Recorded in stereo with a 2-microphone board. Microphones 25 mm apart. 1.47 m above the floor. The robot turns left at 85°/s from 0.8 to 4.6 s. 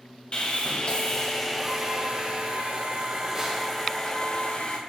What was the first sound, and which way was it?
Sawing, 70° left.